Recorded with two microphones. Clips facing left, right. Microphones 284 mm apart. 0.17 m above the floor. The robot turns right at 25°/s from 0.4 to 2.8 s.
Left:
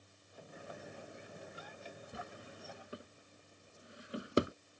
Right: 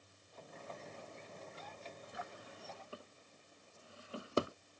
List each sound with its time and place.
2.1 s a drawer: 35° left (ahead or behind); by 4.5 s 20° left (ahead or behind)